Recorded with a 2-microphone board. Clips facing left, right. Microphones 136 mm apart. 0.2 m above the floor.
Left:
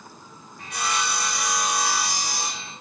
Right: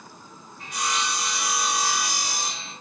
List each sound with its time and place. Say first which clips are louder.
0.6 s sawing: left 1 dB; 85° left, 10 m